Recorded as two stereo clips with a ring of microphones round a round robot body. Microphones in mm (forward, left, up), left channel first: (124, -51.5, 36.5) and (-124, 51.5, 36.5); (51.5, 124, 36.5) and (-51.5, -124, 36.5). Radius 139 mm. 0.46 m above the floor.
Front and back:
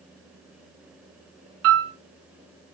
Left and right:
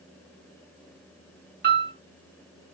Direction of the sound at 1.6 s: 165° right.